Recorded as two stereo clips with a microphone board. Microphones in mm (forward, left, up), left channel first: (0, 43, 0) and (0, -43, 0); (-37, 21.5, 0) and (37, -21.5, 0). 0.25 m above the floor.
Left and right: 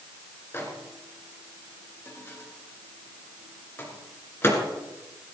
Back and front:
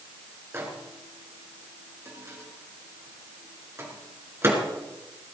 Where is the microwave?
30° left, 2.5 m.